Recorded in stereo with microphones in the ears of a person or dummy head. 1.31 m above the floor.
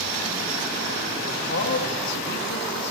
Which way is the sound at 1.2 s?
55° left (ahead or behind).